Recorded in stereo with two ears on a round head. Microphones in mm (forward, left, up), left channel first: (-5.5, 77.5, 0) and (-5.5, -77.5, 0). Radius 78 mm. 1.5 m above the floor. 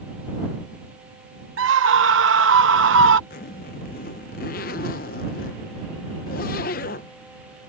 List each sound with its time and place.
1.6 s a scream: 80° right
3.3 s a zipper: 55° left (ahead or behind)